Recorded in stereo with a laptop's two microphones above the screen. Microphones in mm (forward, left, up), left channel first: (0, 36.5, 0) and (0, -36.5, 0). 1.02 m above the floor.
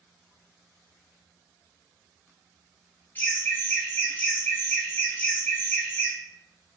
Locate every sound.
3.1 s laughter: 20° left (ahead or behind), 1.0 m